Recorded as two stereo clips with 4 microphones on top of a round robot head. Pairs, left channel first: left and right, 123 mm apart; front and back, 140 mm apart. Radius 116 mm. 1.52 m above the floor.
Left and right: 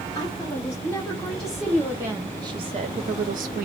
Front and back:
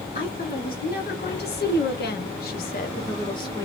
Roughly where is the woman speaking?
Ahead.